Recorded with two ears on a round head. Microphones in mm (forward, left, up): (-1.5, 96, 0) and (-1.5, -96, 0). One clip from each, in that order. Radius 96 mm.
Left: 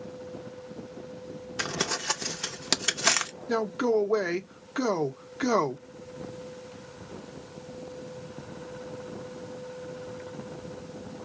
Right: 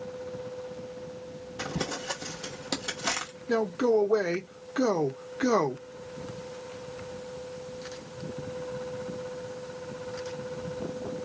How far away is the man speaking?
About 0.7 m.